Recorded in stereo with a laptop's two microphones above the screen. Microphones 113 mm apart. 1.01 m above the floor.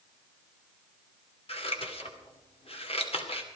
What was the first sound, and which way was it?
Scissors, 60° left (ahead or behind).